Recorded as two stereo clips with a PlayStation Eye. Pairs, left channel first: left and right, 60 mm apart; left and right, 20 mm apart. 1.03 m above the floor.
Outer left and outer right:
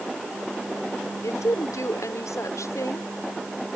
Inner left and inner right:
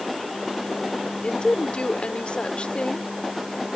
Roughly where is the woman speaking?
Left.